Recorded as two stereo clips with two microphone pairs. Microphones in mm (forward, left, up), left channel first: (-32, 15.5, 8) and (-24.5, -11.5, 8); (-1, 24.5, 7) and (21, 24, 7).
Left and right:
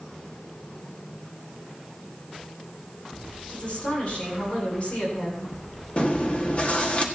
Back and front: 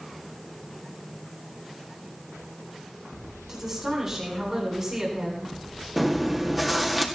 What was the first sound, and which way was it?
A woman speaking, 60° left.